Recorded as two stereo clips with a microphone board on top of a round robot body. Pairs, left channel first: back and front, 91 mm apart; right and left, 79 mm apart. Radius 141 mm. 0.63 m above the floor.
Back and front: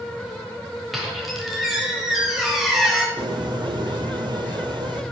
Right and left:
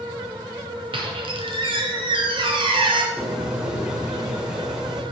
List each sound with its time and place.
0.9 s a squeak: 90° left, 1.2 m
3.2 s a bird: 10° left, 1.3 m